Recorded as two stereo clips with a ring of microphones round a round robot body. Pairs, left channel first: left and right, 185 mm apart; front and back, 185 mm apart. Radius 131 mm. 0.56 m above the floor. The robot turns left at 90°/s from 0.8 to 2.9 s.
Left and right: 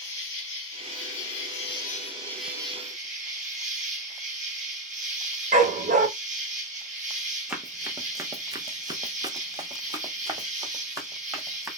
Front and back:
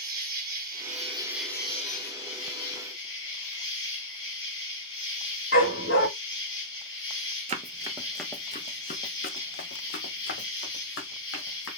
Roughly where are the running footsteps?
Behind.